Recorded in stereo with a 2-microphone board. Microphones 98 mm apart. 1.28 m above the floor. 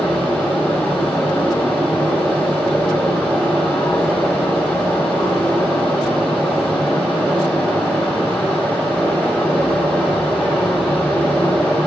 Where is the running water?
5° left (ahead or behind), 4 m.